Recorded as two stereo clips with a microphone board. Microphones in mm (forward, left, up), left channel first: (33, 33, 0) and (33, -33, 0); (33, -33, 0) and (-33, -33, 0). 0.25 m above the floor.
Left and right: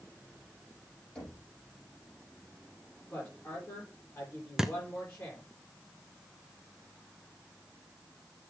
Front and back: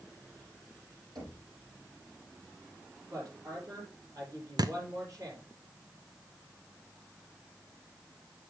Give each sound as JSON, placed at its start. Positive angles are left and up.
{"t": 1.1, "sound": "knocking", "azimuth_deg": 165, "distance_m": 7.0}
{"t": 3.1, "sound": "a woman speaking", "azimuth_deg": 145, "distance_m": 6.5}
{"t": 4.6, "sound": "a thud", "azimuth_deg": -170, "distance_m": 0.8}